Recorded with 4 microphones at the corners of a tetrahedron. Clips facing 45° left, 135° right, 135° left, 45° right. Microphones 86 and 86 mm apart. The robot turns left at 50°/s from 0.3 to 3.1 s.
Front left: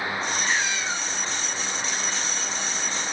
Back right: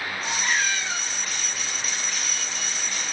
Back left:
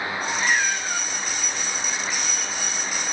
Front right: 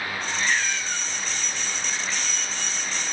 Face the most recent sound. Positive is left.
turn(degrees=5)